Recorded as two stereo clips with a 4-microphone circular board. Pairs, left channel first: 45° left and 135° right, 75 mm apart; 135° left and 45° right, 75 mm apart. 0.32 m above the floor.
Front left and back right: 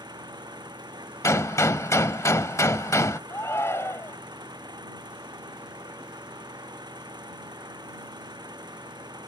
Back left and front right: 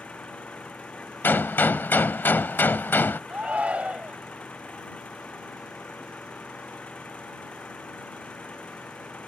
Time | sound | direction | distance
0.0 | an engine running | 150° right | ?
1.2 | a gunshot | 80° left | ?
3.3 | a shout | 20° left | ?